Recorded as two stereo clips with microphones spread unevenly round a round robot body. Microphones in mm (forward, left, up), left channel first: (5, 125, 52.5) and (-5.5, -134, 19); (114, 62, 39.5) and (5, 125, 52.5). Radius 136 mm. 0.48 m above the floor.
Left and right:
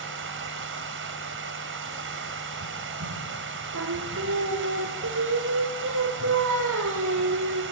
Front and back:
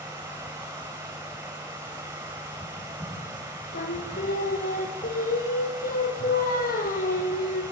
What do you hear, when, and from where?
0.0 s running water: 135° right, 2.5 m
3.7 s singing: 50° right, 3 m